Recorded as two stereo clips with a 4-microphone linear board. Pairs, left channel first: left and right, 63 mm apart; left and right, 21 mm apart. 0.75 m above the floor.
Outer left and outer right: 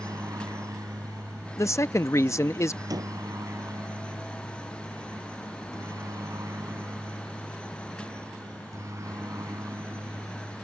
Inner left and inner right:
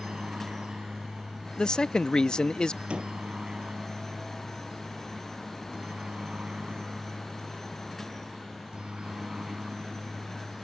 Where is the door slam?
85° right.